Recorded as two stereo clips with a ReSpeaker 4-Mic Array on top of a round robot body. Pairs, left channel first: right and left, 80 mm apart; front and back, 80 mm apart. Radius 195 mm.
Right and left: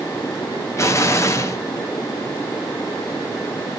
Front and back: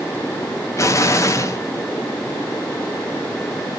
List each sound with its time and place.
0.8 s an explosion: 45° right, 1.0 m